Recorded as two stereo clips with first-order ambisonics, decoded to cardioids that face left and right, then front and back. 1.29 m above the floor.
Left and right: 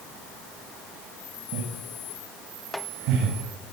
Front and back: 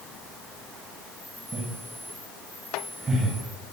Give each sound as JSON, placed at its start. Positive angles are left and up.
{"t": 1.5, "sound": "laughter", "azimuth_deg": -115, "distance_m": 7.5}